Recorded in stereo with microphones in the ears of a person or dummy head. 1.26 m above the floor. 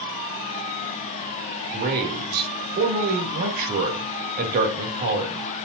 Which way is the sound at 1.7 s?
50° right (ahead or behind).